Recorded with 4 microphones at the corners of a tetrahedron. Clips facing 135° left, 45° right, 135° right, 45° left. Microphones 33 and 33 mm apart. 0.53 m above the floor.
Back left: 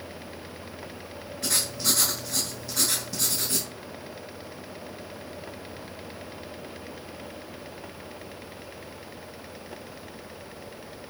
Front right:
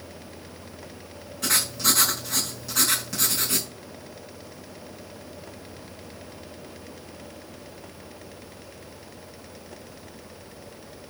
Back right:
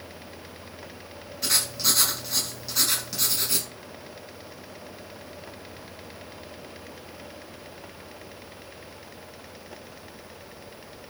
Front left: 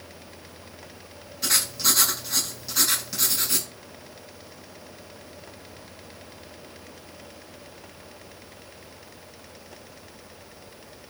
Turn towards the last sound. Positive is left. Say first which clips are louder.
# front right 4 dB, front left 1 dB
turn(degrees=-45)